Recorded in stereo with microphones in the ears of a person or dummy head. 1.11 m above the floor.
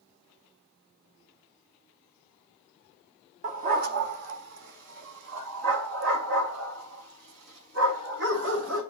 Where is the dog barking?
40° right (ahead or behind), 0.9 m; by 8.8 s 80° right, 4 m.